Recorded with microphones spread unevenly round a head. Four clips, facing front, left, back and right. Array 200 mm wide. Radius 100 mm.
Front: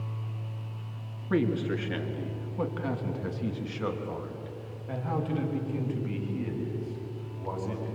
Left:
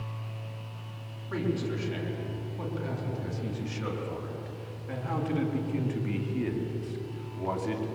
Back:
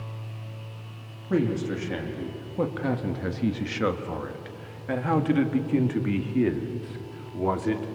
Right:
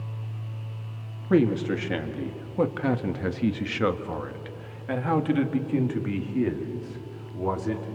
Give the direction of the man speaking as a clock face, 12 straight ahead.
3 o'clock.